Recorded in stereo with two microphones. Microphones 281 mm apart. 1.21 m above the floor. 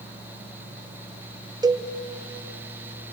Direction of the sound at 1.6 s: 15° right (ahead or behind).